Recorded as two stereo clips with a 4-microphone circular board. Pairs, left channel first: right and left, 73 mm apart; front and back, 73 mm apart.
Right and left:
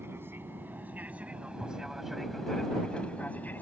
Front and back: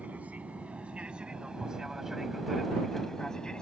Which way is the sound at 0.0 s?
125° left.